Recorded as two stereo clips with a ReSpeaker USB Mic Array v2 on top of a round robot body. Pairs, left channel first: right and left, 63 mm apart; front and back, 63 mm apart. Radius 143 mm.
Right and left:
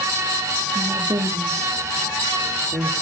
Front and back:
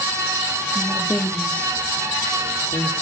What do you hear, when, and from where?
0.8 s a woman speaking: 75° left, 1.6 m; by 2.9 s 50° left, 2.5 m